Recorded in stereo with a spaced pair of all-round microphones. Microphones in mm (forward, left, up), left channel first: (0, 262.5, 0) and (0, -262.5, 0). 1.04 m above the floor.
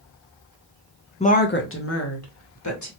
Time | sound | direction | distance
1.2 | a woman speaking | 15° left (ahead or behind) | 0.6 m